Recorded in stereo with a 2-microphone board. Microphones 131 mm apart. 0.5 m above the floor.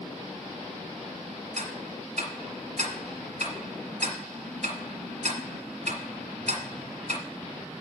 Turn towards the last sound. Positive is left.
turn(degrees=-70)  # may be behind; listen again after turning